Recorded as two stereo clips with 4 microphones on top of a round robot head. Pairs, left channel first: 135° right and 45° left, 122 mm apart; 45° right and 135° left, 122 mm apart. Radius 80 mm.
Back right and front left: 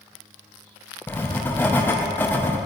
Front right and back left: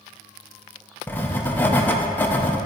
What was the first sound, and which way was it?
Writing, 90° right.